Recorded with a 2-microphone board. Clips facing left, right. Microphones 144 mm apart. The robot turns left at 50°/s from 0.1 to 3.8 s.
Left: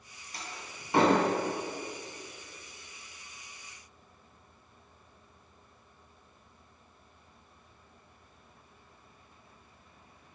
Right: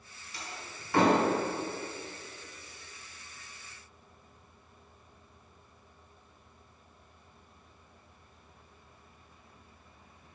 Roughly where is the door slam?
Left.